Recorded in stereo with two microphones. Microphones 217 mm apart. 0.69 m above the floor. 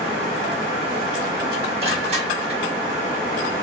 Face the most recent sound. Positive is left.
turn(degrees=-30)  # may be behind; listen again after turning